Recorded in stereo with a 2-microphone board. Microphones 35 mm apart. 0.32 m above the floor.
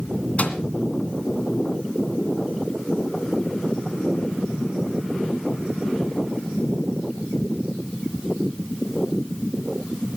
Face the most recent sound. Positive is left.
turn(degrees=40)  # may be behind; listen again after turning